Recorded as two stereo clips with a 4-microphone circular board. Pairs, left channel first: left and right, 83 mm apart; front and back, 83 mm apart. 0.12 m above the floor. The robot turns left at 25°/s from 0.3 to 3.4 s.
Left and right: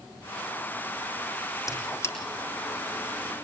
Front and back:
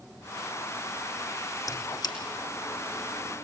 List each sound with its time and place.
1.7 s a squeak: 45° left, 3 m; by 2.1 s 30° left, 3 m